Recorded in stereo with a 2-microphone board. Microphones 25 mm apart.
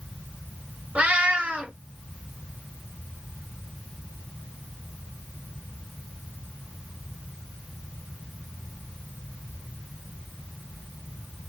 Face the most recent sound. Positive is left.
turn(degrees=-70)  # may be behind; listen again after turning